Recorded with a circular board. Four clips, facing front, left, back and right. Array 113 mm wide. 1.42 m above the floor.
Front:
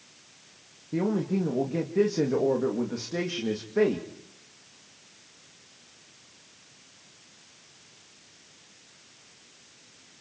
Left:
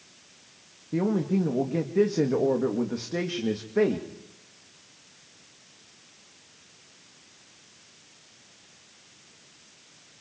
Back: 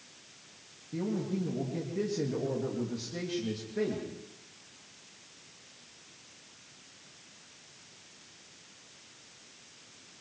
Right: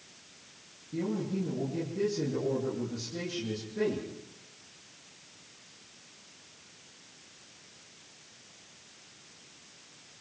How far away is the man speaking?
About 2.5 m.